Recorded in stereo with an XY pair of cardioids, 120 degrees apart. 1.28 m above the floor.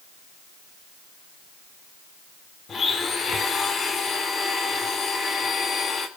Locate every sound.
2.7 s a blender: 40° left, 3 m